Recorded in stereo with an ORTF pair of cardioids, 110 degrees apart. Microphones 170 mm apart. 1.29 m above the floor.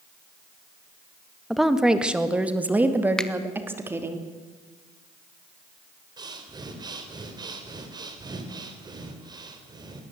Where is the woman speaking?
Straight ahead, 1.1 m; by 4.2 s 15° right, 2.5 m.